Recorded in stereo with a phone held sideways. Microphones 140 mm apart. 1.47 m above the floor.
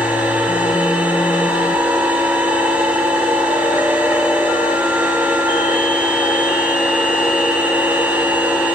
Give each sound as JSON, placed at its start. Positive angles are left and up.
{"t": 0.0, "sound": "a machine running", "side_deg": -15, "distance_m": 3.5}